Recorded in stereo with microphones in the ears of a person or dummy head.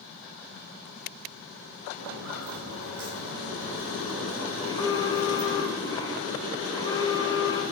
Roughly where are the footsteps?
Right.